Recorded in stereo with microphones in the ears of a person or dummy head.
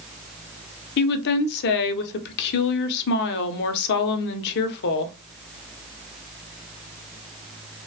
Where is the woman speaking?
60° left (ahead or behind), 0.5 m.